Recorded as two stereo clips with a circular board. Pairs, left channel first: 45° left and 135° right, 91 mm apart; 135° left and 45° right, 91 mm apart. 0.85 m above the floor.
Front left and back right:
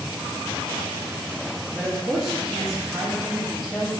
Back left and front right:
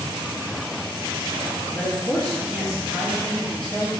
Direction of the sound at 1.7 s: 135° left.